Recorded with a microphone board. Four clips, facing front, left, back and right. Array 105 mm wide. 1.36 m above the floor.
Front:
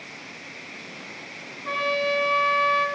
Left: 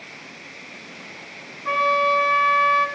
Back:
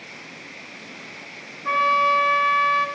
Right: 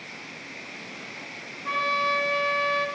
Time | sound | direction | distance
1.6 | a trumpet | 150° left | 1.2 m